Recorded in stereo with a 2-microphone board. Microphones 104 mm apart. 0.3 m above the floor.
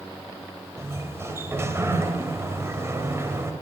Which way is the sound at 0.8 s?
25° right (ahead or behind).